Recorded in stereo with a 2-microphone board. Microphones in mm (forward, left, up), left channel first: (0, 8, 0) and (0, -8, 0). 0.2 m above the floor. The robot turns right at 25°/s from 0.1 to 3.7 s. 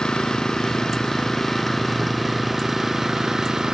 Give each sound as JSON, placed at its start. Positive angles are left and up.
{"t": 0.0, "sound": "an engine running", "azimuth_deg": 125}